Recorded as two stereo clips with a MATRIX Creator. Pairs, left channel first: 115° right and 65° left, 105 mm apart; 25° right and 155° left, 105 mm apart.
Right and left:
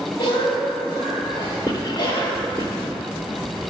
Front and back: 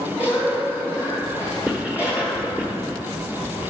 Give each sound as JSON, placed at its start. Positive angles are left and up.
{"t": 0.2, "sound": "a cough", "azimuth_deg": -135, "distance_m": 1.8}
{"t": 1.7, "sound": "writing", "azimuth_deg": -125, "distance_m": 1.0}